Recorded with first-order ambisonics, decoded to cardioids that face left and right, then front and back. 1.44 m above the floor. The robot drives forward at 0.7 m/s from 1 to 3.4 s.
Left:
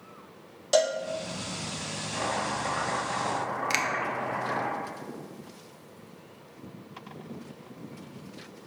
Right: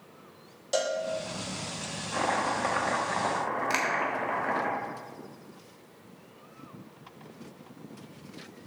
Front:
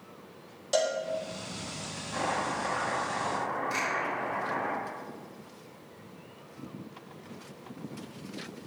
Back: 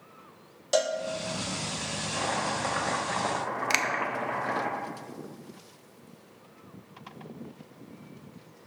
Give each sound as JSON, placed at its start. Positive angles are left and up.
{"t": 0.7, "sound": "a cowbell", "azimuth_deg": 125, "distance_m": 0.9}
{"t": 2.1, "sound": "chopping", "azimuth_deg": -85, "distance_m": 1.0}
{"t": 3.7, "sound": "a finger snap", "azimuth_deg": 165, "distance_m": 0.7}